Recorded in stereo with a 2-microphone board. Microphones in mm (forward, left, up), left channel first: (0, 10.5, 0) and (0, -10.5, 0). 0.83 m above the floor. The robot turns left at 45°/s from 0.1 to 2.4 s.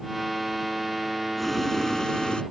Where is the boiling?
175° left; by 2.4 s 125° left.